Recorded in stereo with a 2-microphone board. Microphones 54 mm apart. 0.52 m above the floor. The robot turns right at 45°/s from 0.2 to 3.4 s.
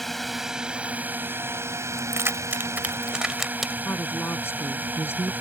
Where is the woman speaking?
50° left (ahead or behind).